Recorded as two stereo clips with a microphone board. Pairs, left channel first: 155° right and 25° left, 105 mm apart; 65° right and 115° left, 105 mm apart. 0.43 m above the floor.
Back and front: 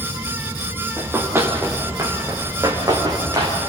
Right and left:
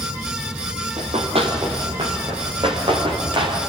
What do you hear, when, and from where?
1.0 s running footsteps: 95° left, 4 m; by 3.6 s 75° left, 5.5 m